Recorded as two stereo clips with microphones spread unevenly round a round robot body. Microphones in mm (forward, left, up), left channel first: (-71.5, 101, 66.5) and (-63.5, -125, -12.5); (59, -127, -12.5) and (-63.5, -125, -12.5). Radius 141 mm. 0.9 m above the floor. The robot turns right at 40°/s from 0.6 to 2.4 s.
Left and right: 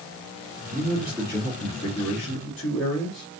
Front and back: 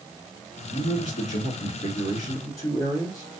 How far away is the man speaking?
About 1.8 m.